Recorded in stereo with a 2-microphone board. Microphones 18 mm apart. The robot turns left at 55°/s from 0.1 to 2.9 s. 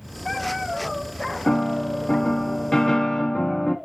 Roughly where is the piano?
Behind left.